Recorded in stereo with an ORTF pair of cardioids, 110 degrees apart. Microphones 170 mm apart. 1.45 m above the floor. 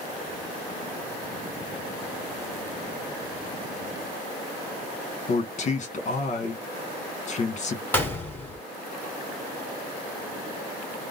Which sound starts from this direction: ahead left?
A man speaking, at 5.3 s.